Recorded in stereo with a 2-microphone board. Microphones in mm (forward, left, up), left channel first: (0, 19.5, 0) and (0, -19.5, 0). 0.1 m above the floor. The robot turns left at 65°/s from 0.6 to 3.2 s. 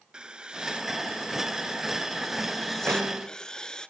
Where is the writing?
20° right (ahead or behind), 1.0 m; by 3.9 s 20° left (ahead or behind), 1.0 m.